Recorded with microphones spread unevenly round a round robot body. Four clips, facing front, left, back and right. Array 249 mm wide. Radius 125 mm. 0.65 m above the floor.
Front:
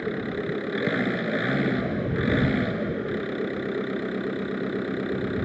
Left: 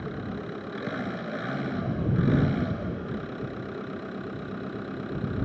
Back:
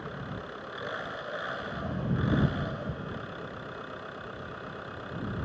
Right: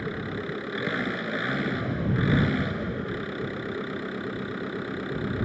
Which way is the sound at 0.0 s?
Straight ahead.